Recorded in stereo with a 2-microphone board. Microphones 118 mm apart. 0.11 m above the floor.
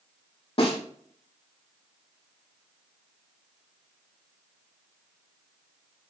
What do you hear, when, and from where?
0.6 s a snare drum: 50° left (ahead or behind), 5 m